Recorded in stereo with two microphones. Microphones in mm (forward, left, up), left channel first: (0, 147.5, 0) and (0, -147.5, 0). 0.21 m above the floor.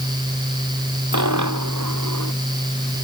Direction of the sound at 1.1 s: 75° right (ahead or behind).